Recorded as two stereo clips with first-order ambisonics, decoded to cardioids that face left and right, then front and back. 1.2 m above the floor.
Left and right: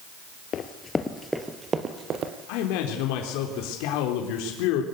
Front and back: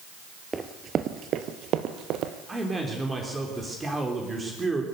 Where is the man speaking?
105° left, 3.5 m.